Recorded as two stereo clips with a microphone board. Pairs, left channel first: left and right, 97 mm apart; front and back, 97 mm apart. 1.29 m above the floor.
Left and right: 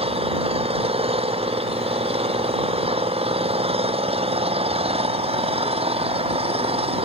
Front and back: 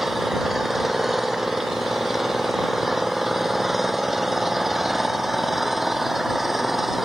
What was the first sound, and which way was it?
An engine running, 90° right.